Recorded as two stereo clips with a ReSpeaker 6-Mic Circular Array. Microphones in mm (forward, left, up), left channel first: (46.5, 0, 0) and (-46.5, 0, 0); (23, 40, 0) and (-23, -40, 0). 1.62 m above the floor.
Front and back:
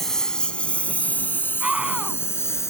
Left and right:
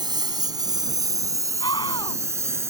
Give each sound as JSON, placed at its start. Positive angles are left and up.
{"t": 0.0, "sound": "a lawn mower", "azimuth_deg": -85}
{"t": 1.6, "sound": "a scream", "azimuth_deg": 100}